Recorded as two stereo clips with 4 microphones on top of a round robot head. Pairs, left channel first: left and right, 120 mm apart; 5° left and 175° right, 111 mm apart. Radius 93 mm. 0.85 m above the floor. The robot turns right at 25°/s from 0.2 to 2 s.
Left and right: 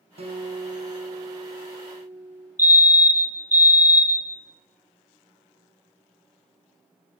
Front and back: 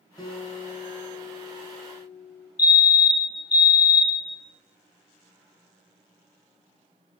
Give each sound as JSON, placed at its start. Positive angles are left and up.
{"t": 0.2, "sound": "a guitar", "azimuth_deg": -55, "distance_m": 3.0}
{"t": 2.6, "sound": "a fire alarm", "azimuth_deg": -25, "distance_m": 2.0}